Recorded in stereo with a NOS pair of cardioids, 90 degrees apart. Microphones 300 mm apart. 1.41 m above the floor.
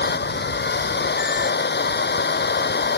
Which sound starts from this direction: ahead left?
A machine running, at 0.0 s.